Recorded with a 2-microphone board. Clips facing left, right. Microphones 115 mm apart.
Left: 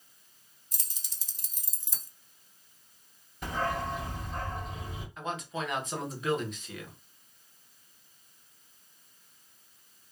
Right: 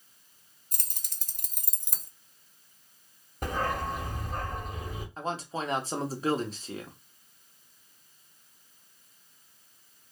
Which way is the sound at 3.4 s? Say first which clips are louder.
Right 1 dB; 50° right (ahead or behind).